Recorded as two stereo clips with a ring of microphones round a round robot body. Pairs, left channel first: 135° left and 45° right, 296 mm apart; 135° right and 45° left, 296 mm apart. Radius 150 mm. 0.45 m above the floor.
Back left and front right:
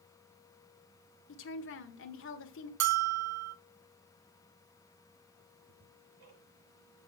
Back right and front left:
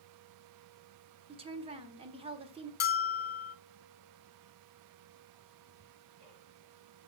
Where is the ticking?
Straight ahead, 5.5 m.